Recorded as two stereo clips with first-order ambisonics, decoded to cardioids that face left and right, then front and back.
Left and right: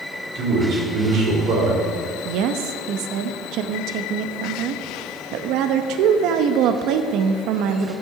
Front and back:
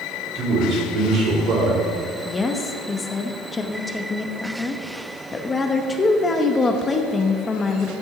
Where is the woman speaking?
70° right, 0.6 m.